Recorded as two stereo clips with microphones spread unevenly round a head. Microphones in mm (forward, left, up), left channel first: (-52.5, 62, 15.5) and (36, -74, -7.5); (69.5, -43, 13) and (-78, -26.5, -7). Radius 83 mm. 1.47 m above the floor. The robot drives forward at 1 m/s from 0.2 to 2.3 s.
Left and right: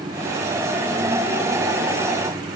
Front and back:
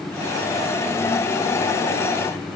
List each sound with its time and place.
Only background noise.